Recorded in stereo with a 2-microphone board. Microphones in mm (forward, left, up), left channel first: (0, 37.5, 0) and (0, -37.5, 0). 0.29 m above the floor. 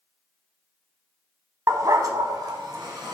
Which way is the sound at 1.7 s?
45° right (ahead or behind).